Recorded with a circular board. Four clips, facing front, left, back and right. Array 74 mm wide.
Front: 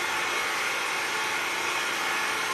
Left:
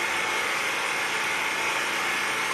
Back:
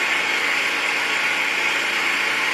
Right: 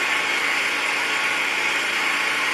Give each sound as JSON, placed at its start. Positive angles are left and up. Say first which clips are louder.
{"t": 0.0, "sound": "an engine running", "louder": "right 4 dB, back 6 dB", "azimuth_deg": -150, "distance_m": 4.0}